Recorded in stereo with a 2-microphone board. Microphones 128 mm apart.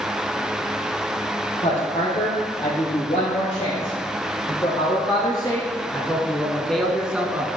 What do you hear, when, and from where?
1.6 s a woman speaking: 60° left (ahead or behind), 4 m; by 7.5 s 15° right (ahead or behind), 1.4 m